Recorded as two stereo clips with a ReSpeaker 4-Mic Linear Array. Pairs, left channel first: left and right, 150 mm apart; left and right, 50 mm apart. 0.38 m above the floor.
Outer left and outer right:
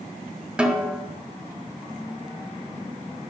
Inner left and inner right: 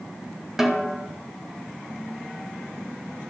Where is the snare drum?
5° right (ahead or behind), 1.7 m.